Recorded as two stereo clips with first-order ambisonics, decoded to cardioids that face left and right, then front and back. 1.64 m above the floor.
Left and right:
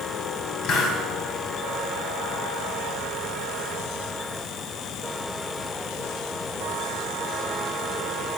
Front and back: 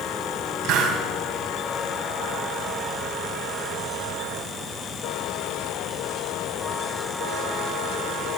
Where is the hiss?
135° left, 4.5 m.